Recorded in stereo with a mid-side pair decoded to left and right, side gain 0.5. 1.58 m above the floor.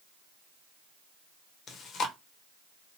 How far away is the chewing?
About 0.9 m.